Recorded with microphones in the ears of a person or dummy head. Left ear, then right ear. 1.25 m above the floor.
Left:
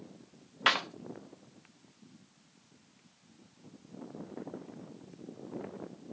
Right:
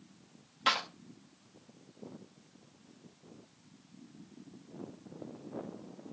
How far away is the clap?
About 0.7 m.